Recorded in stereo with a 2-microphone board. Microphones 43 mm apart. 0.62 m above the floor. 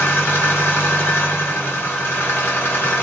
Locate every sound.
0.0 s an engine running: 70° left (ahead or behind), 2.5 m